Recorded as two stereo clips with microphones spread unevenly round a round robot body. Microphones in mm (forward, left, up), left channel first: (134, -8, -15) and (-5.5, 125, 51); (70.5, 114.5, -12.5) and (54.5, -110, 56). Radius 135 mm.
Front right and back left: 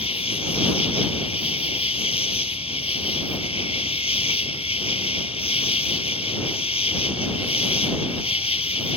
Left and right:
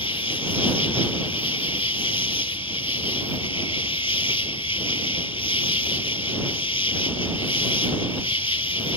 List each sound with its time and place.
0.0 s an insect: 15° left